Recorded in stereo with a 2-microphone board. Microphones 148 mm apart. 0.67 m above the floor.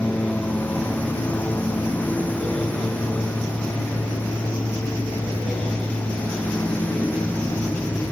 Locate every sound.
0.0 s a lawn mower: 10° left (ahead or behind)